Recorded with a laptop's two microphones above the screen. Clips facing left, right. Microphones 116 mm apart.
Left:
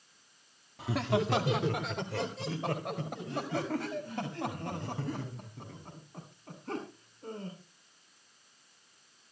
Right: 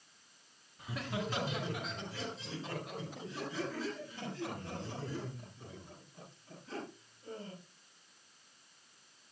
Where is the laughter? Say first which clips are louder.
Left 9 dB; 80° left, 2 m; by 7.5 s 65° left (ahead or behind), 11.5 m.